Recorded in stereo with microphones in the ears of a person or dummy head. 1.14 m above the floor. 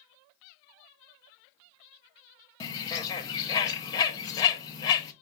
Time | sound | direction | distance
2.6 | a bird | 20° left (ahead or behind) | 0.7 m